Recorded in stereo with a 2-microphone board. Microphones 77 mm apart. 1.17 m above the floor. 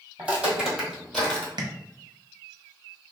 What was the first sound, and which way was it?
Footsteps, 15° right (ahead or behind).